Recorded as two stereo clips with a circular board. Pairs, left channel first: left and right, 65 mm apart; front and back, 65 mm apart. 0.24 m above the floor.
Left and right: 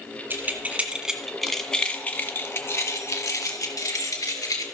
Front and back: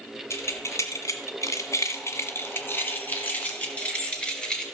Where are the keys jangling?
35° right, 1.8 m; by 4.6 s 75° left, 3 m.